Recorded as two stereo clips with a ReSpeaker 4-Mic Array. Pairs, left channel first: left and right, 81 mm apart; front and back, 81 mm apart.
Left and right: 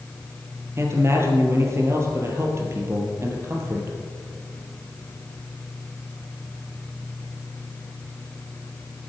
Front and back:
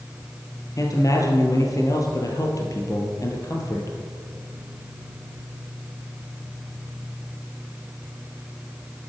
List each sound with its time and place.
0.8 s a man speaking: 40° right, 2.5 m